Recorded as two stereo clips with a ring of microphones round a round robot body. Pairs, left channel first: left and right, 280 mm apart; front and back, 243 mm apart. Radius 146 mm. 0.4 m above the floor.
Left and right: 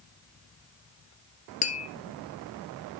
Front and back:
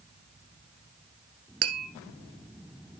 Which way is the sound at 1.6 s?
155° left.